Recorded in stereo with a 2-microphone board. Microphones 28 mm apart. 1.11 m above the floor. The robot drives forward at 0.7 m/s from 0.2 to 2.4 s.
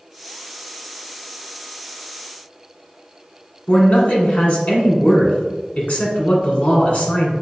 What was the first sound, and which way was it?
A man speaking, 50° left (ahead or behind).